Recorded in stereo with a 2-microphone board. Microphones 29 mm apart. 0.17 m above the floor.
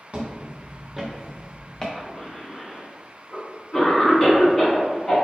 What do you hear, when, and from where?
0.1 s footsteps: 40° right (ahead or behind), 1.4 m; by 1.9 s 25° left (ahead or behind), 1.4 m
1.9 s a cough: 25° left (ahead or behind), 1.5 m